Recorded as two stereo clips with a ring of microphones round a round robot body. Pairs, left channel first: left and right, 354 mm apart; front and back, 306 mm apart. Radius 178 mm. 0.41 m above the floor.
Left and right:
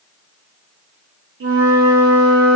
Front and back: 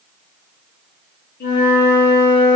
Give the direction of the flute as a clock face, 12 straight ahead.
2 o'clock.